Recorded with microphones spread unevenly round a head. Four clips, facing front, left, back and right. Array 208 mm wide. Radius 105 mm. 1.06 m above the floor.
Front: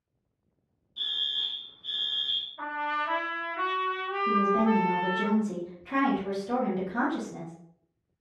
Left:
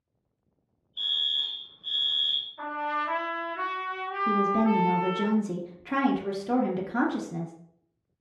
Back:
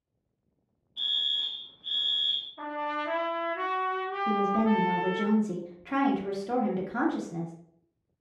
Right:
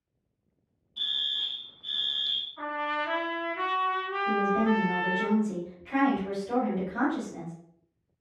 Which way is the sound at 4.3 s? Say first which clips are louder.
Left 2 dB, front 1 dB; 80° left.